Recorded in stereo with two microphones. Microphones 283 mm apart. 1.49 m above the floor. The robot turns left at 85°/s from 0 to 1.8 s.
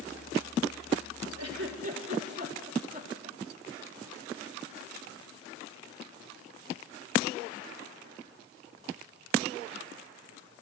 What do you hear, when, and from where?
1.4 s a giggle: 65° right (ahead or behind), 4 m; by 3.4 s 30° right (ahead or behind), 4 m